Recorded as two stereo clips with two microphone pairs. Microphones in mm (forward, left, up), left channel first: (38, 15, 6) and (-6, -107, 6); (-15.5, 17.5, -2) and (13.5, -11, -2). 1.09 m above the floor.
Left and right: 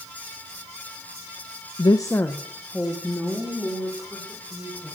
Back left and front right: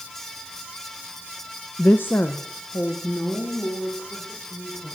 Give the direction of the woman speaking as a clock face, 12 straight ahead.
9 o'clock.